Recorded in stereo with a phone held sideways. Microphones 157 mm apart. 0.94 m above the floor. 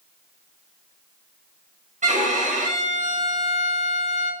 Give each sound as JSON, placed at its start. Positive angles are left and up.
{"t": 2.0, "sound": "a violin", "side_deg": -50, "distance_m": 0.7}